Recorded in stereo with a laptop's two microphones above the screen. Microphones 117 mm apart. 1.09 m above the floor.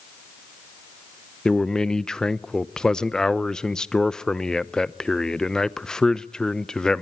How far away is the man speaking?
About 0.7 m.